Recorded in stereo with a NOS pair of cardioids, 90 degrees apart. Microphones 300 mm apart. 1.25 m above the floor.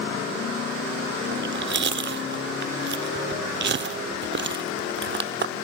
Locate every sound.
1.3 s chewing: 40° right, 1.9 m